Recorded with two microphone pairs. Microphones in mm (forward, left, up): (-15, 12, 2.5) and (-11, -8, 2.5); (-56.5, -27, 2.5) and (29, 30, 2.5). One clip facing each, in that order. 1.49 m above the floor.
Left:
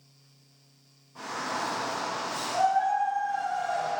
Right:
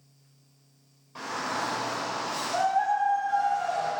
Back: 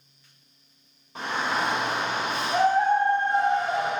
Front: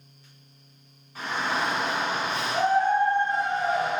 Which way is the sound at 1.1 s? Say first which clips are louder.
Right 1 dB, back 1 dB; 130° right.